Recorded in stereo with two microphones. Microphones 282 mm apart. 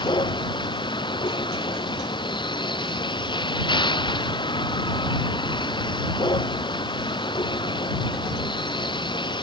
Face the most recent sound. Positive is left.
turn(degrees=15)  # may be behind; listen again after turning